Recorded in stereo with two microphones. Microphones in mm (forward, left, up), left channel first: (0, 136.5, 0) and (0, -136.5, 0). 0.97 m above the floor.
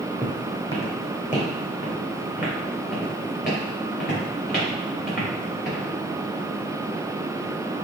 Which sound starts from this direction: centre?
Footsteps, at 0.2 s.